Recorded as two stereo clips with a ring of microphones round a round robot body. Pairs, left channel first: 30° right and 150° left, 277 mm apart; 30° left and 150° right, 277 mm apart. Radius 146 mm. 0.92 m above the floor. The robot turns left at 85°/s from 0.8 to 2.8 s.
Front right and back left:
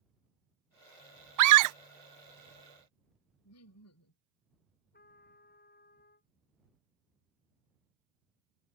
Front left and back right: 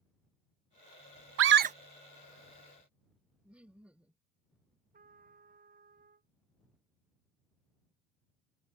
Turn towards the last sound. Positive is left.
turn(degrees=-90)